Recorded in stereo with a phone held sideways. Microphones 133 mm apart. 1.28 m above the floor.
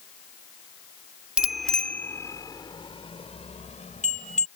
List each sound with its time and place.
1.4 s a bicycle bell: 5° right (ahead or behind); by 4.5 s 65° left (ahead or behind)